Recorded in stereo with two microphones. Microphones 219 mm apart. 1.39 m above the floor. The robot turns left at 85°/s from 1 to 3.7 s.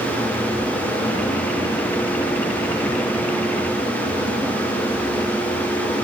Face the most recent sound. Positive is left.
No sound to turn to.